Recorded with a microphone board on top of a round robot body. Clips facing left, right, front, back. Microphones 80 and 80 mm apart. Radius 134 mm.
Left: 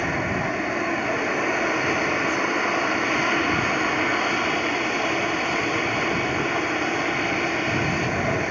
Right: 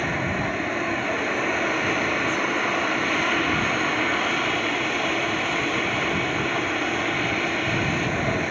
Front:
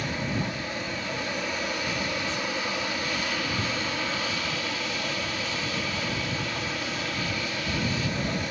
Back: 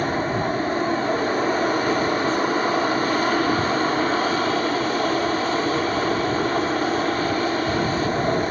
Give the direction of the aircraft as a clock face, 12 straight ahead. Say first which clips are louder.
Left 1 dB, back 8 dB; 6 o'clock.